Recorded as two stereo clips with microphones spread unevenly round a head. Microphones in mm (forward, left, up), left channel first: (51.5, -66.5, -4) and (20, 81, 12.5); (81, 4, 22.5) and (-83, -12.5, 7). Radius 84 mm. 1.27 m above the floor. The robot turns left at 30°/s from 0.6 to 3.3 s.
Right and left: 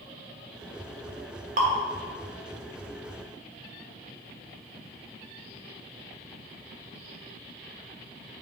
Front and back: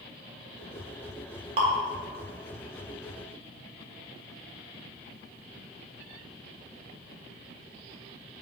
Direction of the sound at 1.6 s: 130° left.